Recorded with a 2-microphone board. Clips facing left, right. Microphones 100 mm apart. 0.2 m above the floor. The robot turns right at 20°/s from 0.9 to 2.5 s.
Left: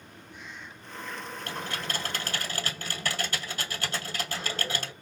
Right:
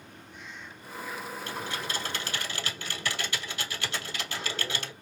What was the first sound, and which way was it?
Typing on a keyboard, 65° left (ahead or behind).